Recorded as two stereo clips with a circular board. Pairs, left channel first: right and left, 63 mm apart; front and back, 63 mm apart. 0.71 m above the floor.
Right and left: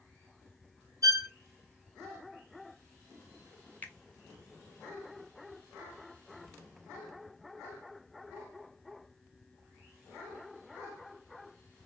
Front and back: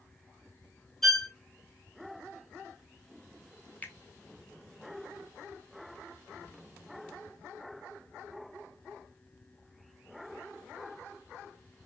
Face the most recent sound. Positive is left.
turn(degrees=-45)